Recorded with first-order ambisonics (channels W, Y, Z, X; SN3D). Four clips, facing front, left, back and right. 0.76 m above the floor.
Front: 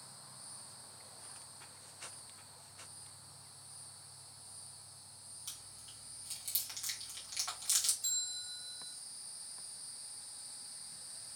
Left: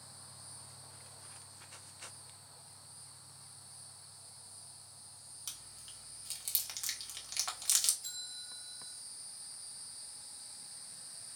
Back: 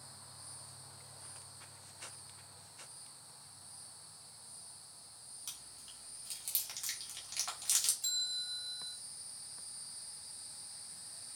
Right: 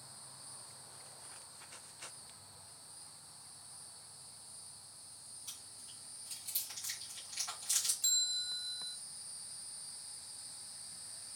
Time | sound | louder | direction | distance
5.5 | chewing | left 3 dB, back 1 dB | 100° left | 1.4 m
8.0 | a bell | right 11 dB, back 3 dB | 105° right | 1.1 m